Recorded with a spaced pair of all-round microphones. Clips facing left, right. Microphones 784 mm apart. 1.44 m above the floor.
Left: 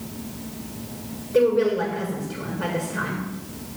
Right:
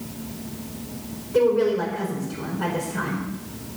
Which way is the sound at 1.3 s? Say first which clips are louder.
Even; 35° right (ahead or behind).